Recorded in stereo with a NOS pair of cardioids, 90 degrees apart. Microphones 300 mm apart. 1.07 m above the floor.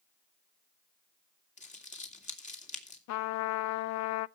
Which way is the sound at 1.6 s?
25° left.